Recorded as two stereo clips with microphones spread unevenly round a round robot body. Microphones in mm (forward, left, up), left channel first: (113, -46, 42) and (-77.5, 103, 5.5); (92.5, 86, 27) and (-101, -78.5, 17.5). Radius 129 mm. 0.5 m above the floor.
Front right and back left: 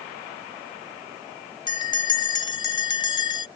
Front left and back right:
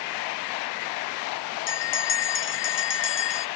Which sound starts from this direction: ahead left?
A bell, at 1.7 s.